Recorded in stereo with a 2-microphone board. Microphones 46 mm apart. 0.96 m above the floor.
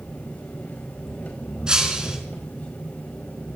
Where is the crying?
No crying in this recording.